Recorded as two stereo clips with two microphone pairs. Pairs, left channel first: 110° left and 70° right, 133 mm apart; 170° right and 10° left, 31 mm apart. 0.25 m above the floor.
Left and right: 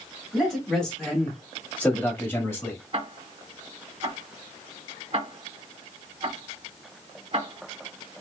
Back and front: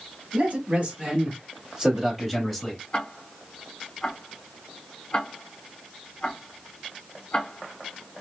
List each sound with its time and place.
0.3 s a man speaking: 25° left, 1.9 m; by 2.8 s 135° left, 1.4 m
2.9 s ticking: 110° right, 0.8 m